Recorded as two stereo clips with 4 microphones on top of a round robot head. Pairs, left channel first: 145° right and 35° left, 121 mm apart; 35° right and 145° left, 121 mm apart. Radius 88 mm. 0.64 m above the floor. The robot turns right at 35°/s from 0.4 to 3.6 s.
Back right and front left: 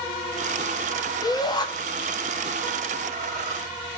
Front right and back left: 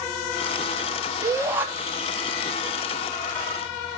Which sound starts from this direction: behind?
A shout, at 1.2 s.